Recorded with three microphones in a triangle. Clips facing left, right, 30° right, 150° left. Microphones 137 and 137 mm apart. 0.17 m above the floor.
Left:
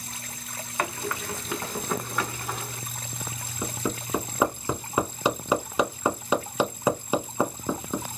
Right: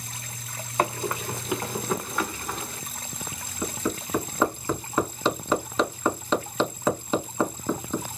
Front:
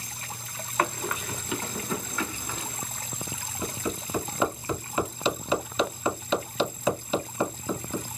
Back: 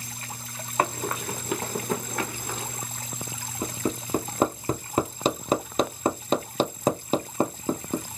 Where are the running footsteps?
145° right, 0.8 m; by 2.8 s 175° left, 1.5 m.